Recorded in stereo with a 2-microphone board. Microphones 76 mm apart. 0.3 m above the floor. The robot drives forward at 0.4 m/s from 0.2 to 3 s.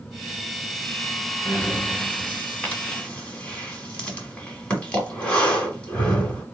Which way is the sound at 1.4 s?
20° left (ahead or behind).